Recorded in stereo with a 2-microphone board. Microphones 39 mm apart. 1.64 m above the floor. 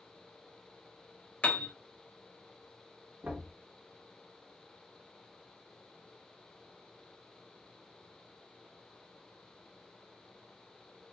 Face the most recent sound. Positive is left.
turn(degrees=-55)  # may be behind; listen again after turning